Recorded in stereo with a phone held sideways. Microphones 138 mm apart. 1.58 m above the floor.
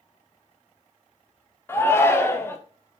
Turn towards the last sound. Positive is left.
turn(degrees=20)  # may be behind; listen again after turning